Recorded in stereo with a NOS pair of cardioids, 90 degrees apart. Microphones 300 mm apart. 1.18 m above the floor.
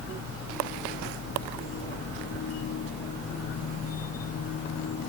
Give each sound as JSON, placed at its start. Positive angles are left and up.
{"t": 0.0, "sound": "a machine running", "azimuth_deg": 55}